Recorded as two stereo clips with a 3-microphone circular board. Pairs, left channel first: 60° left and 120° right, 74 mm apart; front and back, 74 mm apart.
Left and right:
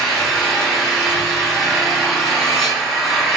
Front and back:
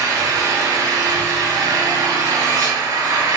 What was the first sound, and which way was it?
An engine running, 150° left.